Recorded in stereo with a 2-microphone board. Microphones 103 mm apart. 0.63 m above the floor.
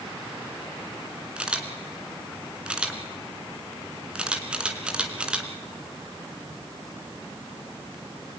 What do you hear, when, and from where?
1.4 s a camera shutter: 10° right (ahead or behind), 2.5 m